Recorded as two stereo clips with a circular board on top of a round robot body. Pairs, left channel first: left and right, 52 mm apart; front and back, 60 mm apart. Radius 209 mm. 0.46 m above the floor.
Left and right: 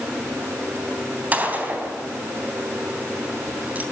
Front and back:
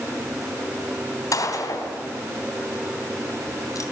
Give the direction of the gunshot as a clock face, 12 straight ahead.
1 o'clock.